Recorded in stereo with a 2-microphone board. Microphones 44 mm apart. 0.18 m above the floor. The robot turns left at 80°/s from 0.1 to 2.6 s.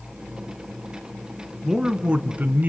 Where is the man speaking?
5° right, 1.5 m; by 2.7 s 80° right, 1.5 m.